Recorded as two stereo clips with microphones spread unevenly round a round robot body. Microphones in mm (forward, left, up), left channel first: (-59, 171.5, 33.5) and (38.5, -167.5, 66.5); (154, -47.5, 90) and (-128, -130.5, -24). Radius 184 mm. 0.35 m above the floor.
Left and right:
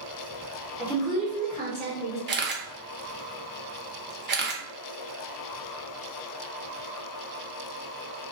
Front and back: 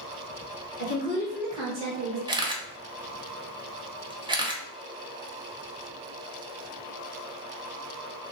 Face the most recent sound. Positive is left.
turn(degrees=-125)